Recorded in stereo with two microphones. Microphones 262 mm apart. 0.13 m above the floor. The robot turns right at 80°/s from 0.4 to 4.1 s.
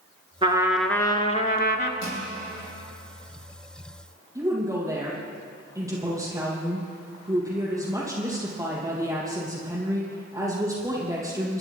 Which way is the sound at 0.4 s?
30° right.